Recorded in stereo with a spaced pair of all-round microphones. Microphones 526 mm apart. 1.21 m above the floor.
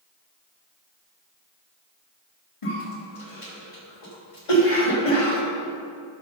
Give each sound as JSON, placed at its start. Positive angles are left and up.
{"t": 2.6, "sound": "a cough", "side_deg": 85, "distance_m": 2.0}